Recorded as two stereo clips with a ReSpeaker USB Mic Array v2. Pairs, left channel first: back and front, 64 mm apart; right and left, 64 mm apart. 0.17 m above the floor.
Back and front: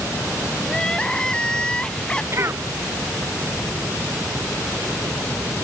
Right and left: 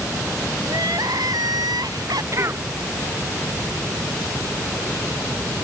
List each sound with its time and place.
0.7 s crying: 100° left
2.3 s a cough: 45° left